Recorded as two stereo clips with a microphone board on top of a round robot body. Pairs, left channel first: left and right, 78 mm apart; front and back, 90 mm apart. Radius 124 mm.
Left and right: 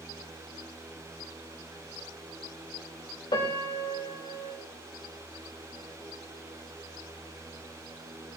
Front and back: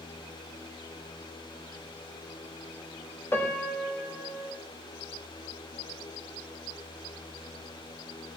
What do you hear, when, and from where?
3.3 s a piano: 65° left, 1.9 m